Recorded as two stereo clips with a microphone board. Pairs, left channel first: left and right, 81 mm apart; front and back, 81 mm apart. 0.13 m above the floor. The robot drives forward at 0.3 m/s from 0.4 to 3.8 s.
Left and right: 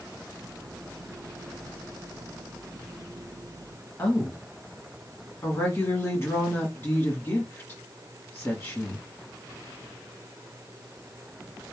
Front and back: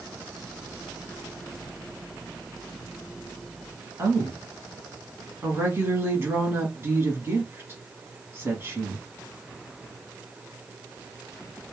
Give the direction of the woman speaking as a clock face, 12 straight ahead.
7 o'clock.